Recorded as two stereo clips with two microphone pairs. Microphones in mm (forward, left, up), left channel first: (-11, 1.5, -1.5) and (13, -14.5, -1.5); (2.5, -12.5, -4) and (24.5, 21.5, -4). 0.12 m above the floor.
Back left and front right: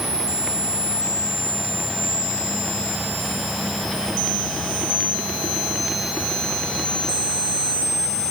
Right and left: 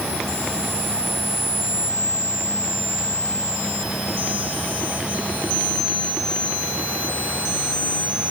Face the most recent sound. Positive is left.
No sound to turn to.